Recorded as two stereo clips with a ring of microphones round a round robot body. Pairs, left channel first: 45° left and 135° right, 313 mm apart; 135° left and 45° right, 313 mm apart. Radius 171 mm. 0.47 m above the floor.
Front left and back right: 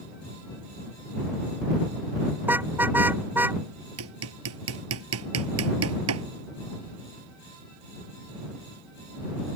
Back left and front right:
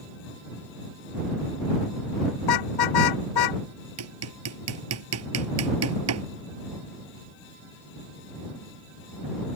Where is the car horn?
140° left.